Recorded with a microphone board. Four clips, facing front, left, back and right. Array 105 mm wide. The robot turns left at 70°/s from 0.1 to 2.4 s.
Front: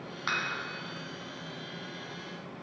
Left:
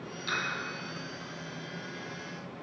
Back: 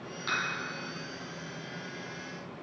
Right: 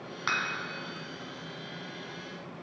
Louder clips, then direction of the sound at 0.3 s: Right 2 dB, even; 60° right.